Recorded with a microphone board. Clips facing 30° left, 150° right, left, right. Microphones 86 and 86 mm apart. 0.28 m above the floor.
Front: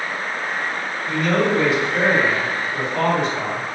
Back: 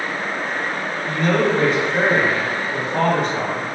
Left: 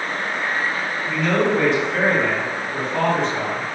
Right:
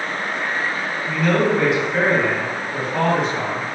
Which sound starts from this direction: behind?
A man speaking, at 1.1 s.